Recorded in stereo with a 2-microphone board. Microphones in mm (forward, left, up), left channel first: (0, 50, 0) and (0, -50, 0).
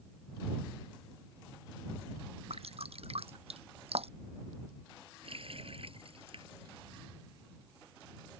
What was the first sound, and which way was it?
Dripping, 85° right.